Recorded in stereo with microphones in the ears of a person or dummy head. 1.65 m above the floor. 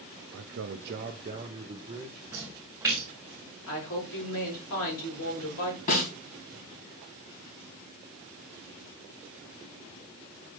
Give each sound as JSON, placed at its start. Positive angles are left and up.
{"t": 0.3, "sound": "a man speaking", "side_deg": -80, "distance_m": 0.6}
{"t": 2.3, "sound": "a splash", "side_deg": -5, "distance_m": 1.1}
{"t": 3.7, "sound": "a woman speaking", "side_deg": 80, "distance_m": 5.0}
{"t": 5.9, "sound": "a snare drum", "side_deg": 45, "distance_m": 4.0}